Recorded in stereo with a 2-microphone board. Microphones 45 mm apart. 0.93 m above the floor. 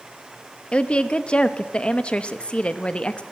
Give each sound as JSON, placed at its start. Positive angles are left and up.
{"t": 0.7, "sound": "a woman speaking", "side_deg": 25, "distance_m": 0.8}